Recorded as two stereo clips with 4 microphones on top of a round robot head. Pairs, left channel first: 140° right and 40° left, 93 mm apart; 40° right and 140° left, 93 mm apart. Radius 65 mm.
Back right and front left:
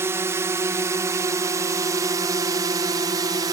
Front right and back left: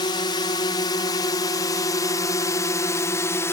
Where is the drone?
15° right; by 3.5 s 15° left.